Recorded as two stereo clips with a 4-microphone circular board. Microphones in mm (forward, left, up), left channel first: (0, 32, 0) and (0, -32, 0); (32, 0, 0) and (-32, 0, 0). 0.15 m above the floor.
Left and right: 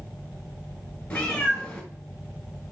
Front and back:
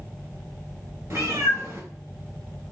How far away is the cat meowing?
About 1.2 m.